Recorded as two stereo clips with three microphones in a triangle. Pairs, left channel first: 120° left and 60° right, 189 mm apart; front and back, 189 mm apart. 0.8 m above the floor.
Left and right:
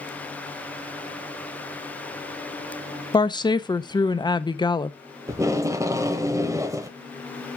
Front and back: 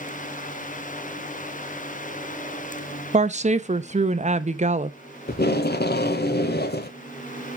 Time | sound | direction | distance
3.1 | a woman speaking | 175° left | 0.6 m
5.3 | tape being pulled | 10° left | 0.8 m